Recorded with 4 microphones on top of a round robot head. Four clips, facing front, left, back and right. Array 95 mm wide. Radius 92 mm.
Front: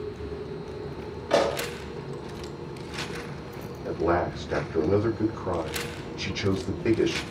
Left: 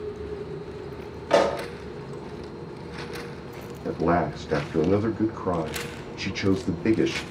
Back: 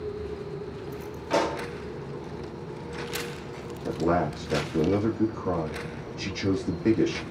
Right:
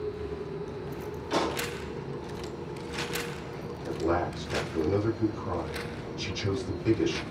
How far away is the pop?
About 2.5 m.